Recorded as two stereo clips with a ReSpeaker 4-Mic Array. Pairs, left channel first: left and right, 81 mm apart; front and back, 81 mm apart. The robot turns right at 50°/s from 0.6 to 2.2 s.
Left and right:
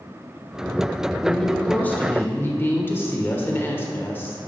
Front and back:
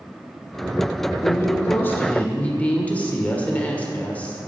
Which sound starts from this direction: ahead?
A woman speaking, at 1.2 s.